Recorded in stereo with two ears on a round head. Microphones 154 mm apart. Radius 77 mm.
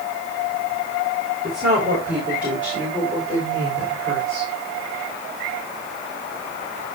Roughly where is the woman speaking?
Centre.